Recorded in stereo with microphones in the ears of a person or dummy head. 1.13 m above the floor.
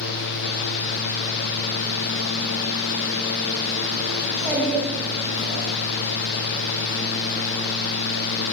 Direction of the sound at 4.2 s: 15° right (ahead or behind).